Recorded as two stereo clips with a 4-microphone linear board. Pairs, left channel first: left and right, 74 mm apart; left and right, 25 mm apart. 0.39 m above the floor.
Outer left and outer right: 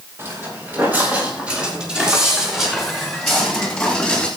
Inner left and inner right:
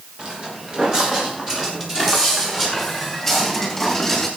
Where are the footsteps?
30° right (ahead or behind), 6.5 m; by 4.3 s 10° left (ahead or behind), 8.5 m.